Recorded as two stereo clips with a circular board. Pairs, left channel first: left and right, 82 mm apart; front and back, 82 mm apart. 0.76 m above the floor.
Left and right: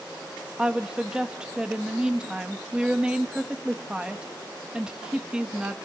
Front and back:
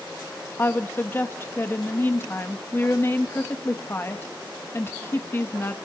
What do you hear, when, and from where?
0.6 s a woman speaking: 20° right, 0.8 m